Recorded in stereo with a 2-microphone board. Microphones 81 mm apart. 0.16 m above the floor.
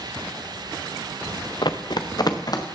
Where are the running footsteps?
65° left (ahead or behind), 0.9 m; by 2.6 s 50° left (ahead or behind), 2 m.